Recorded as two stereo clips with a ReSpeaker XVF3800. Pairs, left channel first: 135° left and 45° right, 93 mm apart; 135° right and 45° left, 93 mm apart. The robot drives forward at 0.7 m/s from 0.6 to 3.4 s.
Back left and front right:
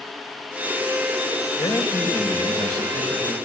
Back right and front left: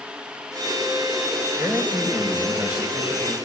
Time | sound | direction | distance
1.6 | a man speaking | 110° left | 4 m